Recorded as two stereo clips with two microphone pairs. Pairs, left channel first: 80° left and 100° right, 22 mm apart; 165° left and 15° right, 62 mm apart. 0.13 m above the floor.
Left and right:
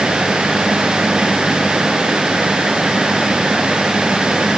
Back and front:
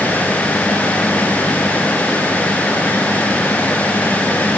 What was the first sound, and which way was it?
Only background noise.